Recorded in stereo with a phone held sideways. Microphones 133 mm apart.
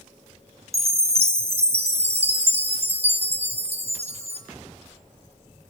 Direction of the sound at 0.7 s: 50° right (ahead or behind).